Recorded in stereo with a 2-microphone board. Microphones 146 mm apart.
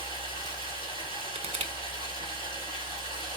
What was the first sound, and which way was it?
Running water, 30° left (ahead or behind).